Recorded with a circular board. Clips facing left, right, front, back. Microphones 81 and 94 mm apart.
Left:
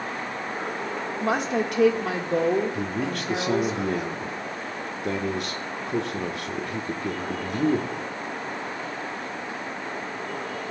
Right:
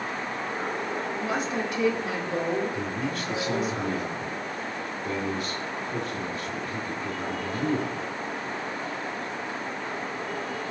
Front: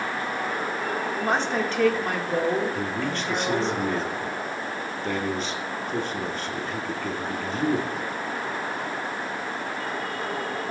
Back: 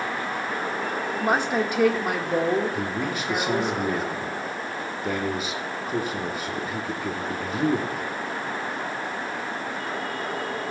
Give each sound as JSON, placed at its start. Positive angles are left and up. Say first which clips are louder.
{"t": 1.2, "sound": "a woman speaking", "louder": "left 7 dB, back 3 dB", "azimuth_deg": 105, "distance_m": 1.8}
{"t": 2.7, "sound": "a man speaking", "louder": "left 2 dB, even", "azimuth_deg": 100, "distance_m": 1.5}